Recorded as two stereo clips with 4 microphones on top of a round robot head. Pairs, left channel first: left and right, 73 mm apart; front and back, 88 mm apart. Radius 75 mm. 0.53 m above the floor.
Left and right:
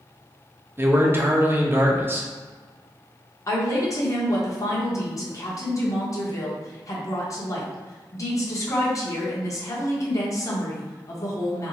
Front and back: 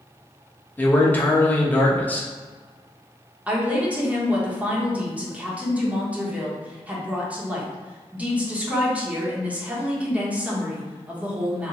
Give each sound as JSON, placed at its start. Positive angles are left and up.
{"t": 0.8, "sound": "a man speaking", "azimuth_deg": -60, "distance_m": 1.0}
{"t": 3.5, "sound": "a woman speaking", "azimuth_deg": 110, "distance_m": 1.5}